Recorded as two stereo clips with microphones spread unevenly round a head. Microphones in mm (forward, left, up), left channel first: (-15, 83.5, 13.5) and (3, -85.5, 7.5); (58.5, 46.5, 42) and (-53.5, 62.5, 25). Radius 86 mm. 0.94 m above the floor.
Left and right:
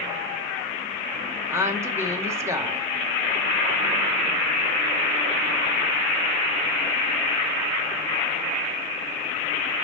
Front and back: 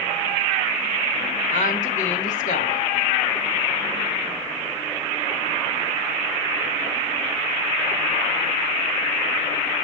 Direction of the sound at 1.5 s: 10° right.